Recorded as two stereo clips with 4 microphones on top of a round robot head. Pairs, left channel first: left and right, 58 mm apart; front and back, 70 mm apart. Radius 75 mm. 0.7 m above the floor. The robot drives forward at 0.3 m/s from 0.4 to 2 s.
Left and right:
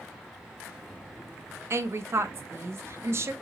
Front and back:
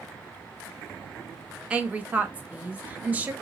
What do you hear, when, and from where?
1.7 s a woman speaking: 110° right, 0.9 m; by 3.3 s 115° right, 0.9 m